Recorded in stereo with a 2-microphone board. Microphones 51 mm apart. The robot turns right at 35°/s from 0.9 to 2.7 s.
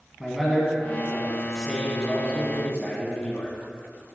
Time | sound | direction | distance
0.2 | a man speaking | 20° right | 1.6 m